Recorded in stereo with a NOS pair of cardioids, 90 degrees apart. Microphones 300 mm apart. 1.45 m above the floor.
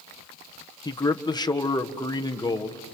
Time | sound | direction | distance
0.8 | a man speaking | 15° left | 1.4 m